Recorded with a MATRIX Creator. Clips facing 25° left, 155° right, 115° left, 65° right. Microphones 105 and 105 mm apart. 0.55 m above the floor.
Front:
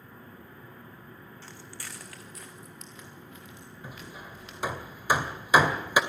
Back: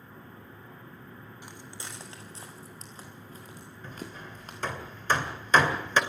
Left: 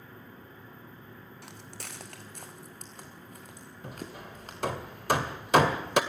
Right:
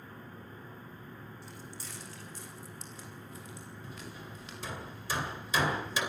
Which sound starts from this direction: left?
Hammering, at 3.8 s.